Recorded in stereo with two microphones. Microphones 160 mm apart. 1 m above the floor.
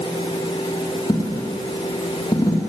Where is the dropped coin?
20° left (ahead or behind), 2.5 m.